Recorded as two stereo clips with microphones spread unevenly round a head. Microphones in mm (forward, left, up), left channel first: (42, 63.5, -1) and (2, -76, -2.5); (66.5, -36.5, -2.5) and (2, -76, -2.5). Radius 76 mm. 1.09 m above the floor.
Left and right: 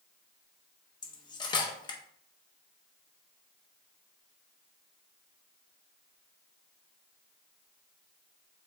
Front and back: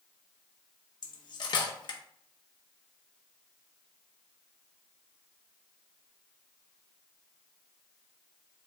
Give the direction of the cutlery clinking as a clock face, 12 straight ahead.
12 o'clock.